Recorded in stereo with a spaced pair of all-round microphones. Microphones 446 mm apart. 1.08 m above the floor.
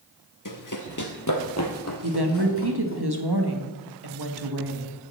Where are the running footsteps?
45° left (ahead or behind), 1.5 m; by 3.0 s 30° left (ahead or behind), 3 m.